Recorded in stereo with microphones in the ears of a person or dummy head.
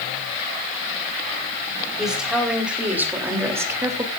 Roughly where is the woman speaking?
Centre.